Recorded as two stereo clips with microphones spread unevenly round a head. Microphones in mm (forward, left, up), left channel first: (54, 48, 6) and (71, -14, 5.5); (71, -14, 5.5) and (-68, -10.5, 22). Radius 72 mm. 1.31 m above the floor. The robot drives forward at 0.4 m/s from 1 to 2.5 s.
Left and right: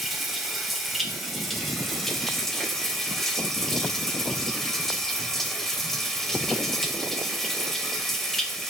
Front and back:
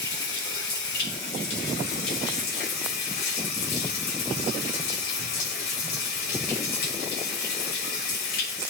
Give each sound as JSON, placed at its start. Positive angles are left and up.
{"t": 0.0, "sound": "running water", "azimuth_deg": 15, "distance_m": 2.5}